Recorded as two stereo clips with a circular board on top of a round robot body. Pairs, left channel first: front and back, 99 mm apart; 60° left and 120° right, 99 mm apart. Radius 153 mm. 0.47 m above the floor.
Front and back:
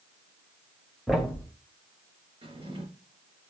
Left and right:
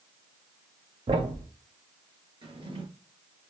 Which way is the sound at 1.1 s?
90° right.